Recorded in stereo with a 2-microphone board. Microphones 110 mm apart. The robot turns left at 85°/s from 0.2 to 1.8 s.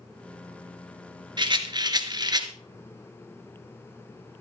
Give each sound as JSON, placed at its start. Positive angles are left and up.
{"t": 1.4, "sound": "a rattle", "azimuth_deg": -75, "distance_m": 1.7}